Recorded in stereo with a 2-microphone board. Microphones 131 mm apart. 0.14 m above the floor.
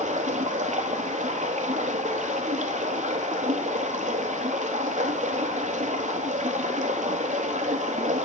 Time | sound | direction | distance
0.0 | running water | 80° right | 0.8 m